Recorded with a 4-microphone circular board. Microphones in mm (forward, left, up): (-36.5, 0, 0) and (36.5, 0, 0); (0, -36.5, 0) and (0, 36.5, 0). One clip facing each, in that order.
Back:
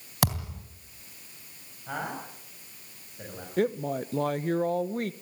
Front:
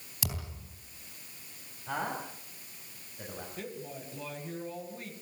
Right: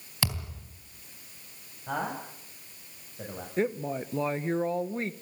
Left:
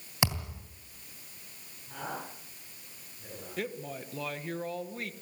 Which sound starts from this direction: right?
A man speaking, at 1.9 s.